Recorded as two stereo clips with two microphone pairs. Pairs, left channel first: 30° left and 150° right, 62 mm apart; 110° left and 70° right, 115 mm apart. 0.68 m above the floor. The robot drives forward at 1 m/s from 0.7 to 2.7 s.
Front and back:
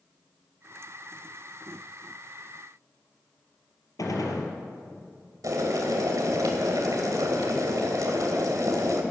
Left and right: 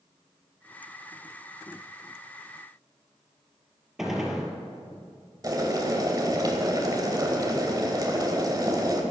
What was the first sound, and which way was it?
A gunshot, 15° left.